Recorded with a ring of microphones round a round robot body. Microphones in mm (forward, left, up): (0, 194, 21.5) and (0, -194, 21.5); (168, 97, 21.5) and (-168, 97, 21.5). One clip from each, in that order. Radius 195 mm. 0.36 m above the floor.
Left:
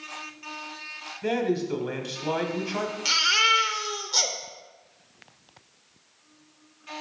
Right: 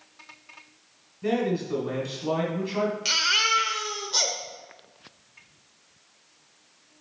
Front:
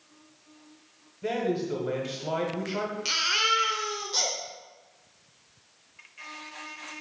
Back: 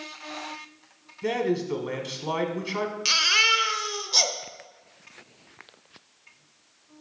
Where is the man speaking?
135° left, 1.1 m.